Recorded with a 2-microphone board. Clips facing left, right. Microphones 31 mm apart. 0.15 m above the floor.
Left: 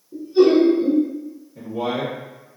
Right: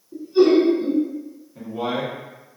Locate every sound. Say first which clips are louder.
0.1 s laughter: left 1 dB; 25° right (ahead or behind), 1.5 m
1.6 s a man speaking: left 1 dB; 15° right (ahead or behind), 1.1 m